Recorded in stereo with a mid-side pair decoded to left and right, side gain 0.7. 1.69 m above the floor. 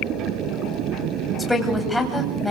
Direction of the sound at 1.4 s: 5° left.